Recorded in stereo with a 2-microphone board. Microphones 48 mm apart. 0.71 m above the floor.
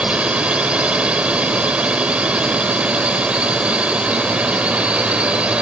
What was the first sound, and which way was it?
A drone, 25° right (ahead or behind).